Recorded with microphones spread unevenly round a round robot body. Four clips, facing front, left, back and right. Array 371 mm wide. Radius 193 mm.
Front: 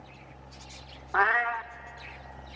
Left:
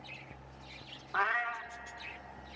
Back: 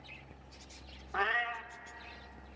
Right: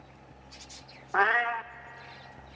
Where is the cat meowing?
65° right, 0.6 m.